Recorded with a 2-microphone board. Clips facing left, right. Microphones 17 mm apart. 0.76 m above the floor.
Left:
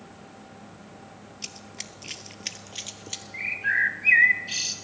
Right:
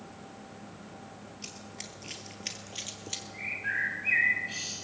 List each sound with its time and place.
1.4 s running footsteps: 45° left (ahead or behind), 0.9 m; by 3.2 s 15° left (ahead or behind), 1.2 m
3.3 s a bird: 70° left (ahead or behind), 1.3 m